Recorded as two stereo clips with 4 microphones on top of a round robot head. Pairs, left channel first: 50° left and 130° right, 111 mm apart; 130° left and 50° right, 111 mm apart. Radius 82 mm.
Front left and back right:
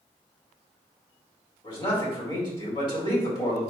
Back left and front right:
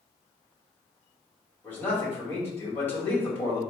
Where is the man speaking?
65° left, 1.8 m.